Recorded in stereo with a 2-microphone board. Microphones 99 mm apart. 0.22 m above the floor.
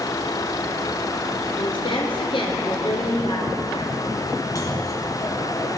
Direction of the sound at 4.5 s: 35° left (ahead or behind).